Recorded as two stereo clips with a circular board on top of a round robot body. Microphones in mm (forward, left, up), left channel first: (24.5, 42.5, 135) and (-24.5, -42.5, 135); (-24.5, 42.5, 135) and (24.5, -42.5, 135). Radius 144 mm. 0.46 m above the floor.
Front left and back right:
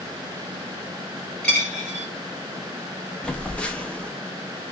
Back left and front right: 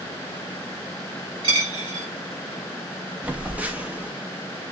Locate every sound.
1.4 s a dropped coin: 20° right, 1.0 m
3.2 s a phone buzzing: 5° right, 0.7 m